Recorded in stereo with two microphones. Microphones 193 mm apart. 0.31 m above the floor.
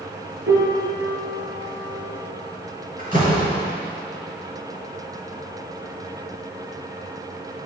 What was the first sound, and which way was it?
A piano, 85° right.